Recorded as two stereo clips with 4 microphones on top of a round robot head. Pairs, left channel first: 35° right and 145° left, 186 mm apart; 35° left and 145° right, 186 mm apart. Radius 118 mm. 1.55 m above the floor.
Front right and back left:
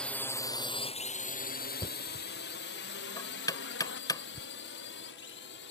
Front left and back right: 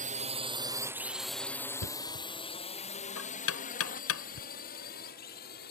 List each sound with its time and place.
0.0 s a drone: 115° right; by 5.7 s 5° right
1.8 s knocking: 40° left